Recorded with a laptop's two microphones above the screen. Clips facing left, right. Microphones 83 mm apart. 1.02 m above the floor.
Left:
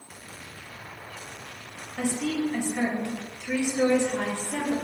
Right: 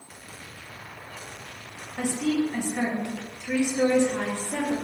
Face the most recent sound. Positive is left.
turn(degrees=-15)  # may be behind; listen again after turning